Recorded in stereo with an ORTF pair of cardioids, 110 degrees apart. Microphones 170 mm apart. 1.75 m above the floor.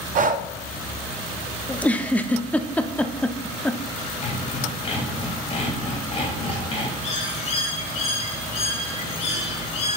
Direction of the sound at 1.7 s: 10° left.